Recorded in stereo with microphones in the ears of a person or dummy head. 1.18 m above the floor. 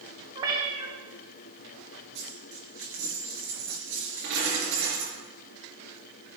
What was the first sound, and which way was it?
A cat meowing, 25° right (ahead or behind).